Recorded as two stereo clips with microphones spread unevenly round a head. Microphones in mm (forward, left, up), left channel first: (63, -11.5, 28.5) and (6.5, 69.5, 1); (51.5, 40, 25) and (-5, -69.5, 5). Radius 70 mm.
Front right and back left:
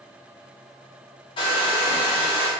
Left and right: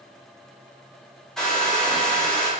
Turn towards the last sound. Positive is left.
turn(degrees=-30)